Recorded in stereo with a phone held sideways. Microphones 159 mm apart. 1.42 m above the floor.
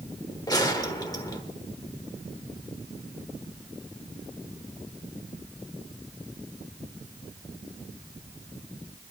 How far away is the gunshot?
About 1.2 m.